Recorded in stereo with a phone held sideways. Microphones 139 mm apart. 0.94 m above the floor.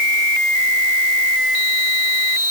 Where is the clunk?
No clunk in this recording.